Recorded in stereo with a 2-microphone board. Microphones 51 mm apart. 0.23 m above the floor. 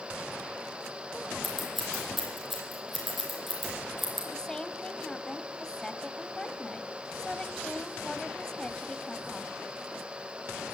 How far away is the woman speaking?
About 1.2 m.